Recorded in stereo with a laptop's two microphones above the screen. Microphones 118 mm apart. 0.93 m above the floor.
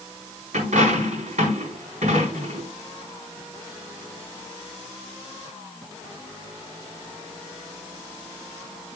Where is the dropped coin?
85° right, 4.5 m.